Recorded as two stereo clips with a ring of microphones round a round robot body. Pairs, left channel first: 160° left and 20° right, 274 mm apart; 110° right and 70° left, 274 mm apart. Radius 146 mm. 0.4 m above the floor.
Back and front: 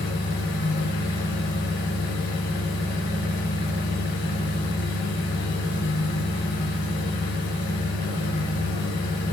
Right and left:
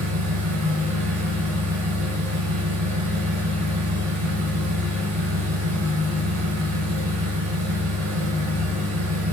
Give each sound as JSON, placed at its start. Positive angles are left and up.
{"t": 0.0, "sound": "an engine running", "azimuth_deg": 100, "distance_m": 2.5}